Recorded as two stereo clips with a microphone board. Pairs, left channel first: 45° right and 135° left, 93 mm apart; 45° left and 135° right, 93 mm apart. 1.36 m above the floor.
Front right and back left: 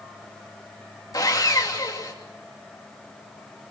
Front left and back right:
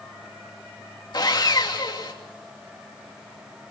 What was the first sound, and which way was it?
Sawing, straight ahead.